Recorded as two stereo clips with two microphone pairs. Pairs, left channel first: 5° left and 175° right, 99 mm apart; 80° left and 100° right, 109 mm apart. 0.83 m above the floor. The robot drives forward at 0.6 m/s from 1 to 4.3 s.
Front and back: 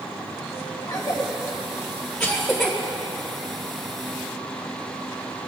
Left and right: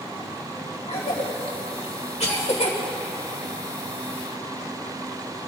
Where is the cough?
60° left, 1.7 m; by 2.8 s 100° left, 1.5 m.